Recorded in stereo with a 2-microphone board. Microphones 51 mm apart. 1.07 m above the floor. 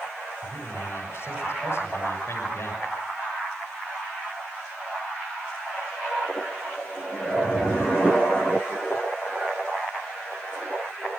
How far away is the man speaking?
About 6 m.